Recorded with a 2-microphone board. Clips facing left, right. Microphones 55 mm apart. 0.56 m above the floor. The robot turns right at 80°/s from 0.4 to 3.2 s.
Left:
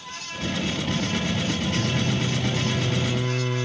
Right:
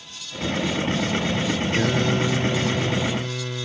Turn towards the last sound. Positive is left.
turn(degrees=10)